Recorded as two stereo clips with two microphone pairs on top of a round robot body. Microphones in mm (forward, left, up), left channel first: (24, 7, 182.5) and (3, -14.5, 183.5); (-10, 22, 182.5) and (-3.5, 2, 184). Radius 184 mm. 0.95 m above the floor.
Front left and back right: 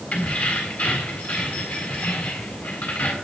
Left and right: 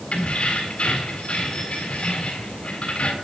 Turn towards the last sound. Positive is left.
turn(degrees=75)